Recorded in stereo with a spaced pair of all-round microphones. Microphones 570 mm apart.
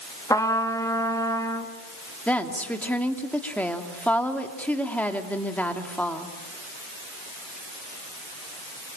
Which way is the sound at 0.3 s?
5° left (ahead or behind).